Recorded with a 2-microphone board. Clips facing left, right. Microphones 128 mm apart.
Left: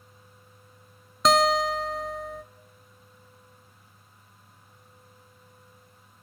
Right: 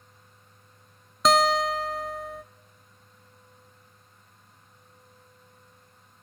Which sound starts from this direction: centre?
A guitar, at 1.2 s.